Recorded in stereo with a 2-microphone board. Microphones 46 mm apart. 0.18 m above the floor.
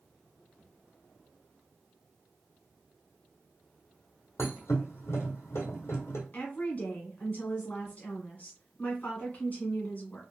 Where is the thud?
70° left (ahead or behind), 1.5 m.